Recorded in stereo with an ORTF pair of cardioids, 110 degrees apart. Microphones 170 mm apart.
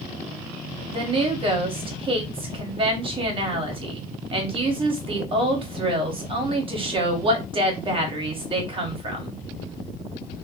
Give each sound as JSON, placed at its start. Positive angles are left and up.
{"t": 0.9, "sound": "a woman speaking", "azimuth_deg": -35, "distance_m": 1.4}